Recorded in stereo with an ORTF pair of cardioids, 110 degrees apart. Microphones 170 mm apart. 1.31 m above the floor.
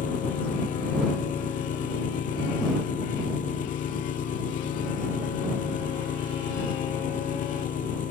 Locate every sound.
0.0 s an engine running: 50° left